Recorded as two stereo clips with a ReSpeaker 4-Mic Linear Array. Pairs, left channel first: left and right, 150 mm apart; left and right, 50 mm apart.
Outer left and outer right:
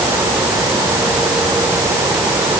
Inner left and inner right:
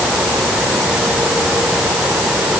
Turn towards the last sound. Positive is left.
No sound to turn to.